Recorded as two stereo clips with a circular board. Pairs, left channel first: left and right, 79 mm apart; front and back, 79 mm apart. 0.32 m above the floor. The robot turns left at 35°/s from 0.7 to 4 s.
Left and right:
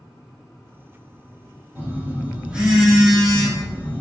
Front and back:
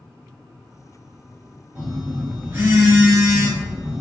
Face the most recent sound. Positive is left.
turn(degrees=150)